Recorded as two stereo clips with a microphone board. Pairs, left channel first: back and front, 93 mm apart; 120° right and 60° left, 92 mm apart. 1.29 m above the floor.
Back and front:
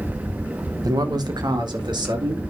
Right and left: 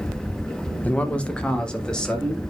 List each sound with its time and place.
0.8 s a man speaking: 45° right, 0.9 m; by 2.4 s 35° right, 2.5 m